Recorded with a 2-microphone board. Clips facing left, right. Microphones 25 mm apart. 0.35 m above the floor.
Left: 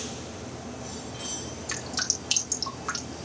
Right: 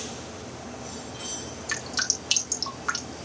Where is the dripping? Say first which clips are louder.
Right 3 dB; 15° right (ahead or behind), 3.5 m.